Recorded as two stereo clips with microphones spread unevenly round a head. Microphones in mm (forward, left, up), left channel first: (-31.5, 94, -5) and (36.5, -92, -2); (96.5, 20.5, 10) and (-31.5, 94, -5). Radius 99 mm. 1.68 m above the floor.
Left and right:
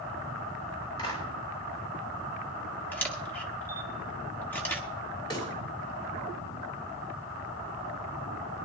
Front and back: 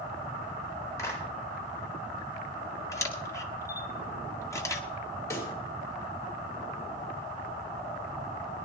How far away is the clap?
About 5 m.